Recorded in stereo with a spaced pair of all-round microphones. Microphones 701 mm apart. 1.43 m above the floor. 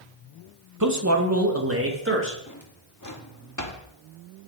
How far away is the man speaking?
About 1.1 m.